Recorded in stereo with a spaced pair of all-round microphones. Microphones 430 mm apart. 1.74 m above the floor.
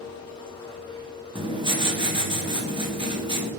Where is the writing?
10° right (ahead or behind), 1.1 m.